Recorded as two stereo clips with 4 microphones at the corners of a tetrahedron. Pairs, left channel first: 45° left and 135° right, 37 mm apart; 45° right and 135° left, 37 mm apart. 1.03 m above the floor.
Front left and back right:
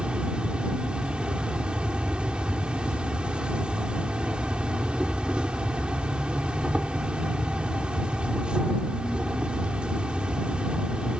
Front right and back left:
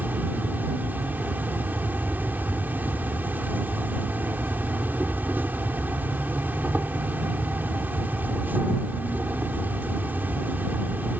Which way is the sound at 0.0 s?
165° left.